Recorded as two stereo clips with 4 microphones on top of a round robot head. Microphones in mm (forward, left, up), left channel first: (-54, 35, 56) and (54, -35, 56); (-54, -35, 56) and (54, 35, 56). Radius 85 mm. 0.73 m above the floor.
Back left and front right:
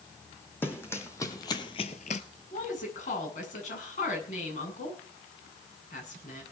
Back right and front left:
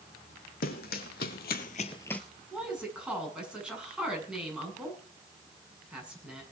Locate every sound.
0.6 s running footsteps: 140° right, 2 m; by 2.2 s 130° left, 0.8 m
2.5 s a woman speaking: 115° left, 8 m